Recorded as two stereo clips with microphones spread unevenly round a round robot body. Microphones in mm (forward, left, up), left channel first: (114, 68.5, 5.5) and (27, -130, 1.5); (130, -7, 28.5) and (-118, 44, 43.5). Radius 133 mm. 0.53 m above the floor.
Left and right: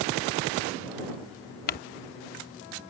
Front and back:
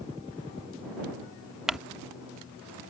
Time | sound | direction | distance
1.7 | crumpling | 80° left | ?